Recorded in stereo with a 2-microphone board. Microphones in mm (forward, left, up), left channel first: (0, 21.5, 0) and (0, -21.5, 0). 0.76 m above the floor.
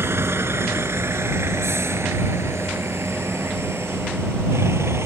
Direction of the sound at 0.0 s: 70° right (ahead or behind).